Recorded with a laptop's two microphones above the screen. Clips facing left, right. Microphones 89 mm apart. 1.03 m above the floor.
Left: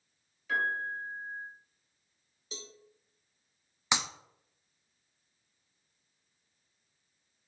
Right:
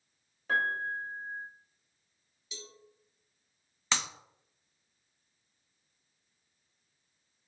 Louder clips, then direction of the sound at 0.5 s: Right 1 dB; 45° right (ahead or behind).